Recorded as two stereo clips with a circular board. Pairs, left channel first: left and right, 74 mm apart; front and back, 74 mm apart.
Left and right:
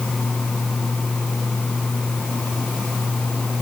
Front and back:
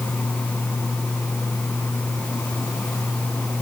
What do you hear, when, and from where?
Only background noise.